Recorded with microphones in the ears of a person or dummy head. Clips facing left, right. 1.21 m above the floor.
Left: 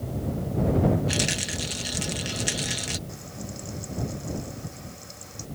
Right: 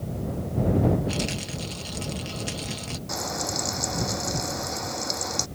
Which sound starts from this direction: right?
Frying, at 3.1 s.